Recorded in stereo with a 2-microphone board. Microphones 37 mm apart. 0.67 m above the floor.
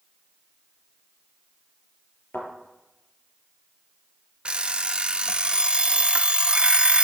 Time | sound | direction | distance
2.3 | a thud | 65° left (ahead or behind) | 5 m
4.5 | an alarm clock | 25° right (ahead or behind) | 0.5 m